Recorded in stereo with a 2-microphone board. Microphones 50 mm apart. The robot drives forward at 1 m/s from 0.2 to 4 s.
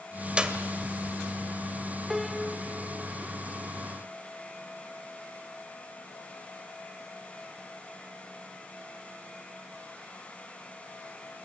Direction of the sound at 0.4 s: 20° right (ahead or behind).